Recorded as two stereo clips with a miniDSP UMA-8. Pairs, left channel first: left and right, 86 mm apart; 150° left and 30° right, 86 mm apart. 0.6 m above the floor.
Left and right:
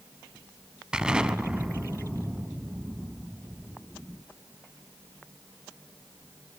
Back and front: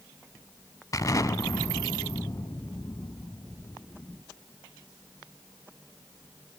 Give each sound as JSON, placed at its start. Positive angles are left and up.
{"t": 0.9, "sound": "an explosion", "azimuth_deg": -170, "distance_m": 0.8}